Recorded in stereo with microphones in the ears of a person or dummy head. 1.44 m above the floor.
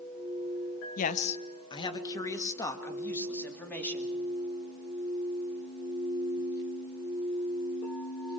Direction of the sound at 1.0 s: 45° left (ahead or behind).